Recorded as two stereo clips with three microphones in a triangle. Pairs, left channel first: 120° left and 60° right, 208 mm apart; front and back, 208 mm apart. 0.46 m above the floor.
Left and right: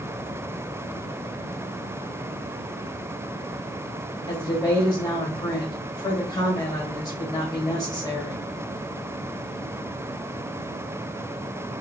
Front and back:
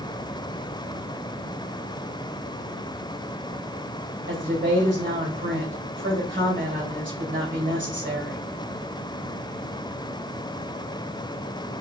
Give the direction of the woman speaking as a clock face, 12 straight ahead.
6 o'clock.